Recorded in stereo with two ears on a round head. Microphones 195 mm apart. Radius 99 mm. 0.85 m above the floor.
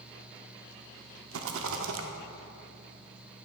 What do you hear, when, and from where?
1.3 s a rattle: 65° right (ahead or behind), 0.6 m